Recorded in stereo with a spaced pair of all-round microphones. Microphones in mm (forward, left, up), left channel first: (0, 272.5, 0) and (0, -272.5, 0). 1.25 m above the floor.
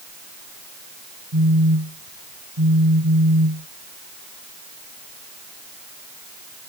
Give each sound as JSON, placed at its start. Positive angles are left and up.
{"t": 1.3, "sound": "a phone buzzing", "side_deg": -40}